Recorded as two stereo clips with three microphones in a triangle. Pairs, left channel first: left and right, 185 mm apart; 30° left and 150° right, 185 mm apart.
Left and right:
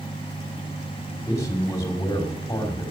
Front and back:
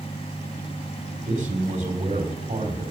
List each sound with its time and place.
1.3 s a man speaking: 165° left, 2.5 m